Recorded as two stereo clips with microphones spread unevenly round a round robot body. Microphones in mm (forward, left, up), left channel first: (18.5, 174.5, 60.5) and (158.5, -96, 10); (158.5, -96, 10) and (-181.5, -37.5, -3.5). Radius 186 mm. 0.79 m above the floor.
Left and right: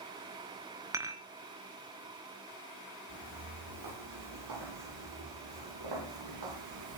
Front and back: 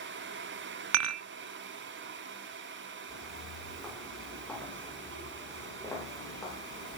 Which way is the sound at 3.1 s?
100° right.